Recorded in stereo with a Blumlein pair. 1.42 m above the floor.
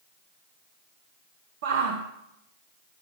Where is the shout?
50° right, 1.1 m.